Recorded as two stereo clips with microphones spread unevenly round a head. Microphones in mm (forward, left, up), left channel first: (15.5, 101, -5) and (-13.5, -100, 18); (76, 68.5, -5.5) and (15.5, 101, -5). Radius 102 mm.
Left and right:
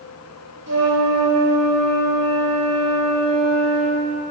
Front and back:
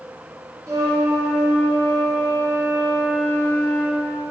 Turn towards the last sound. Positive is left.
turn(degrees=-115)